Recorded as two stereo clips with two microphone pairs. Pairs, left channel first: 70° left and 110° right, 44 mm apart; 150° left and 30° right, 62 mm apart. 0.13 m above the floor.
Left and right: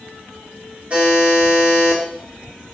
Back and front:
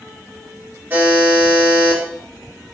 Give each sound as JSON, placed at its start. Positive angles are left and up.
{"t": 0.9, "sound": "a buzzer", "azimuth_deg": -70, "distance_m": 2.0}